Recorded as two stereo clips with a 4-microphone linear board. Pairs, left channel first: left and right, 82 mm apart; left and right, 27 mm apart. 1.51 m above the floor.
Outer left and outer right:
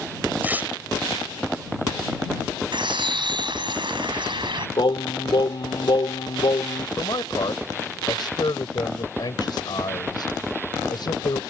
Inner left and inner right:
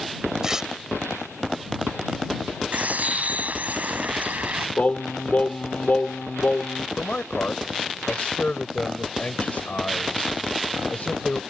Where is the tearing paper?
20° right (ahead or behind).